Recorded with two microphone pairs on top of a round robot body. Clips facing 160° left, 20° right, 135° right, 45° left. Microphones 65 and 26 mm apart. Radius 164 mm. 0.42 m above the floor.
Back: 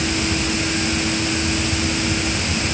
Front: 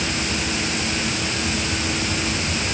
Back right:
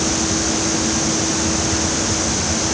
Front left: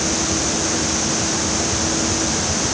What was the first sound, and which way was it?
Only background noise.